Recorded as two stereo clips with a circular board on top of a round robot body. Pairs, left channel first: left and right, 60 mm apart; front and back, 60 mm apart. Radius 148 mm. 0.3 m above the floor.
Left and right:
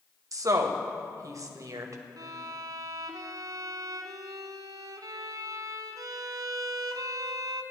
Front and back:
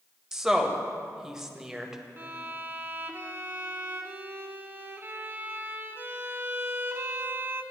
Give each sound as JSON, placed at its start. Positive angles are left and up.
{"t": 0.3, "sound": "a woman speaking", "azimuth_deg": -100, "distance_m": 1.9}
{"t": 2.2, "sound": "a violin", "azimuth_deg": -120, "distance_m": 0.7}